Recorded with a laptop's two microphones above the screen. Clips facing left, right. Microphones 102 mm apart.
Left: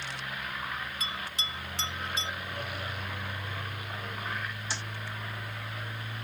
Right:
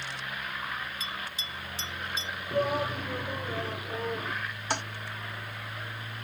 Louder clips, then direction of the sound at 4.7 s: Right 10 dB; 55° right (ahead or behind).